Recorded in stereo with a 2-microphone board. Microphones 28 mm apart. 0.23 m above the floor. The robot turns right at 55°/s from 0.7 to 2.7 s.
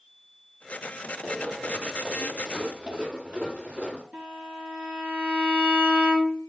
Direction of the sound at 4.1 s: 55° right (ahead or behind).